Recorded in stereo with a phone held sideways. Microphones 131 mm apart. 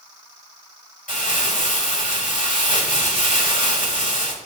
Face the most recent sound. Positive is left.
turn(degrees=80)